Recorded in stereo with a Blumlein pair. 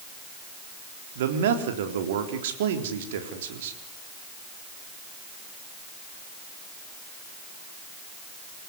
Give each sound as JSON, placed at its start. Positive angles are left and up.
{"t": 1.1, "sound": "a man speaking", "azimuth_deg": -55, "distance_m": 4.0}